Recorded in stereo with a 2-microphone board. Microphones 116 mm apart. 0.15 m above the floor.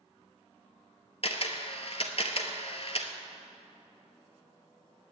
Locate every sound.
1.2 s a camera shutter: 55° left (ahead or behind), 1.0 m